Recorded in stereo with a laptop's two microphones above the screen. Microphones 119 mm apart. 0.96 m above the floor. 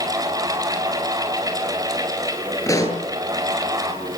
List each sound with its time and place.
0.0 s a fan: 30° right (ahead or behind), 5 m
2.7 s a pop: 25° left (ahead or behind), 9.5 m